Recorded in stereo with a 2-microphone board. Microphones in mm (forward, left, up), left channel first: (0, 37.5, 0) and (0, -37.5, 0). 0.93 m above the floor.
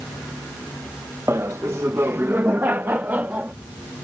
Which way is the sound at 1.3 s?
35° right (ahead or behind).